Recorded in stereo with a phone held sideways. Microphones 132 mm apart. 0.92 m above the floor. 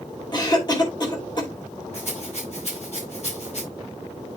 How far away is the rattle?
About 4 m.